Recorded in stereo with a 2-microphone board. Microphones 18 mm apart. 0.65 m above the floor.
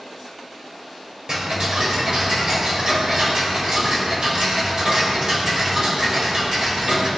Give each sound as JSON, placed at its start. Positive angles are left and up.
{"t": 1.3, "sound": "ticking", "side_deg": -50, "distance_m": 3.5}